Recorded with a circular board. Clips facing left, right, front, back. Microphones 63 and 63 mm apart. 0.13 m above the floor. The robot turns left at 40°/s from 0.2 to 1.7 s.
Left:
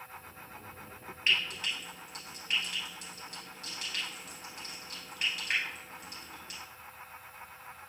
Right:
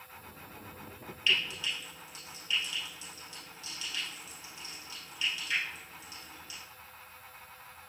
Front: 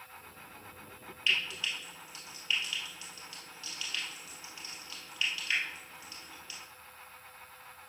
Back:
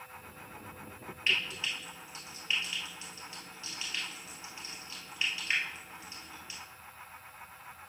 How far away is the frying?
About 2.5 m.